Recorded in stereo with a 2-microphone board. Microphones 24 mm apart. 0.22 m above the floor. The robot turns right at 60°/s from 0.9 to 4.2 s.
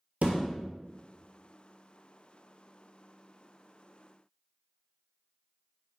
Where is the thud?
75° right (ahead or behind), 0.6 m.